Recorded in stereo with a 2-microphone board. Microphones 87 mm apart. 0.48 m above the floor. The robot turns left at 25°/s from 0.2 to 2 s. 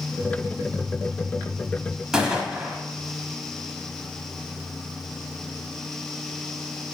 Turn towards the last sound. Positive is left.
turn(degrees=-10)  # may be behind; listen again after turning